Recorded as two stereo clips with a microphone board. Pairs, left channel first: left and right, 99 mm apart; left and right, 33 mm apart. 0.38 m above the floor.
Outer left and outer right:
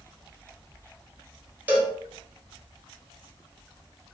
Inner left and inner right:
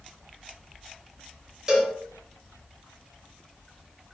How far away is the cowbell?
About 0.8 m.